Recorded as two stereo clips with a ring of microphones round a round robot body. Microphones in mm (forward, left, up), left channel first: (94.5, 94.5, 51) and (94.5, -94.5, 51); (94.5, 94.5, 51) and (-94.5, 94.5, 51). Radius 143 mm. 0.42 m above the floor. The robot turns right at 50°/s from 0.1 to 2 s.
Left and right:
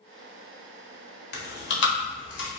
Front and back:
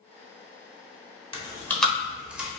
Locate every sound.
1.3 s chewing: 60° left, 1.0 m; by 2.5 s 95° left, 1.0 m